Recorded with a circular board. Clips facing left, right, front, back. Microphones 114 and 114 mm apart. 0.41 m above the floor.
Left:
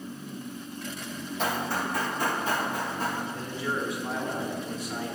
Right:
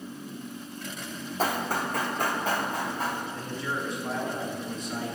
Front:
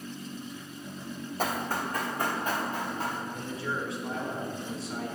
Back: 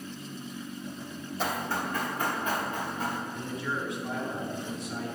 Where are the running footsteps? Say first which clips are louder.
Right 1 dB, even; 40° right, 1.2 m; by 3.2 s 55° right, 4 m.